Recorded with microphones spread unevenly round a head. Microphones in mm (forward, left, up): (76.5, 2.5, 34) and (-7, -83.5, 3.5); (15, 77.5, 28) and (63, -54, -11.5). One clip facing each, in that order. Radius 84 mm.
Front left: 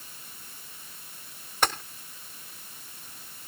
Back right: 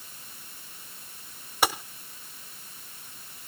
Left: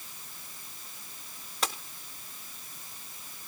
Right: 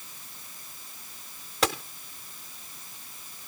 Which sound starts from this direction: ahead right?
A gunshot, at 1.6 s.